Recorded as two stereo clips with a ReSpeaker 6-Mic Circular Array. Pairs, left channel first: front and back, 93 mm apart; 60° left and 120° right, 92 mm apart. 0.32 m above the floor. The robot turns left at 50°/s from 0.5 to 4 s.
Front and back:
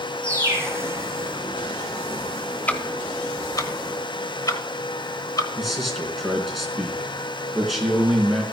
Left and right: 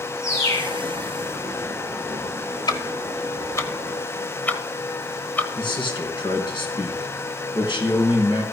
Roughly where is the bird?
Behind left.